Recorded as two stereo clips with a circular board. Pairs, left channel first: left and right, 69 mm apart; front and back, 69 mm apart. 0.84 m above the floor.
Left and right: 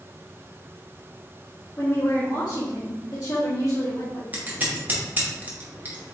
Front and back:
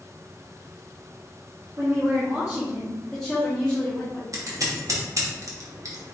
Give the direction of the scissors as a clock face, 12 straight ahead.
5 o'clock.